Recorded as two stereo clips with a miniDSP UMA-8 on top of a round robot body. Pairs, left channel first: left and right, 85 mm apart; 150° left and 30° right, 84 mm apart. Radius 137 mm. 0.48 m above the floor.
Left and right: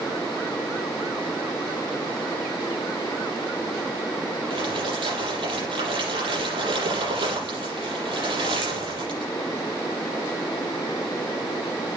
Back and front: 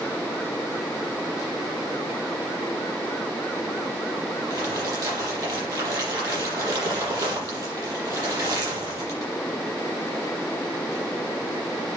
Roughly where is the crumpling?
Right.